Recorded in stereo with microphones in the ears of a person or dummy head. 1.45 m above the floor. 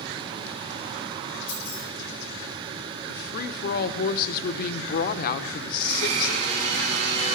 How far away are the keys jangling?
About 5.5 m.